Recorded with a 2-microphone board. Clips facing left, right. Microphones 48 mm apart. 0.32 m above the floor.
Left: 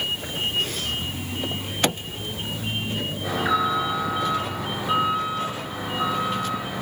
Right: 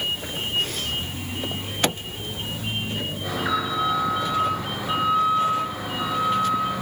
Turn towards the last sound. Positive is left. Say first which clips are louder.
# left 3 dB
turn(degrees=0)  # may be behind; listen again after turning